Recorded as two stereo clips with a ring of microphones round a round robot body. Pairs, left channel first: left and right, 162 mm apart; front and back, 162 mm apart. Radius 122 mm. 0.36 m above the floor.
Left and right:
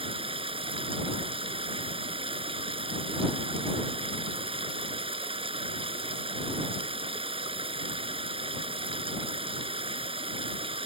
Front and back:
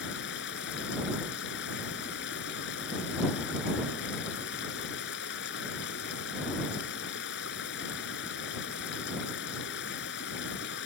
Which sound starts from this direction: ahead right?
Running water, at 0.0 s.